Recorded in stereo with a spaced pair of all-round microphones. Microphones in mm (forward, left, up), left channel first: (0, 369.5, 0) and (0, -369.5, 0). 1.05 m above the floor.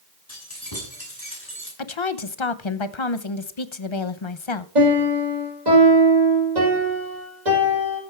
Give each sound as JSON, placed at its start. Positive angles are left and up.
{"t": 0.3, "sound": "keys jangling", "side_deg": 20, "distance_m": 6.0}
{"t": 1.8, "sound": "a woman speaking", "side_deg": 40, "distance_m": 0.8}
{"t": 4.8, "sound": "a piano", "side_deg": -65, "distance_m": 6.0}